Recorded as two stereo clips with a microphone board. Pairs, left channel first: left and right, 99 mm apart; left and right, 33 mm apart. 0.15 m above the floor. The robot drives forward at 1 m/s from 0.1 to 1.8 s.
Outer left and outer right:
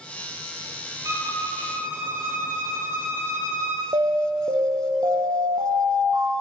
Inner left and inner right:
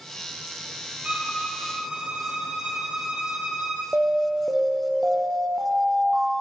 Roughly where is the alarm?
Right.